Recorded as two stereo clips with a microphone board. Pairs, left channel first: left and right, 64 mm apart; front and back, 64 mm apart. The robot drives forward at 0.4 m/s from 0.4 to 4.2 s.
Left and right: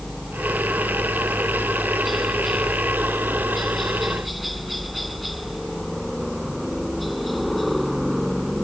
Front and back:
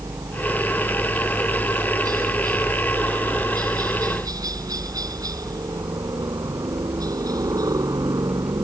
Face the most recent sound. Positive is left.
turn(degrees=180)